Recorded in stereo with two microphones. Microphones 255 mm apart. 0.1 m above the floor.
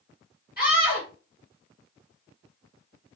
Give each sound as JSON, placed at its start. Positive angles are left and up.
{"t": 0.6, "sound": "a scream", "side_deg": 35, "distance_m": 1.9}